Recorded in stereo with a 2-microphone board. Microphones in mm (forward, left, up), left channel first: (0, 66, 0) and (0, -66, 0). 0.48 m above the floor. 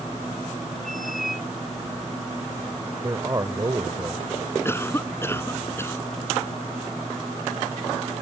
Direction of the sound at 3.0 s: 30° right (ahead or behind).